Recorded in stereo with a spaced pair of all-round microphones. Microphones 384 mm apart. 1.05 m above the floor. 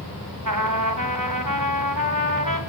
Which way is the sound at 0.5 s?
55° right (ahead or behind).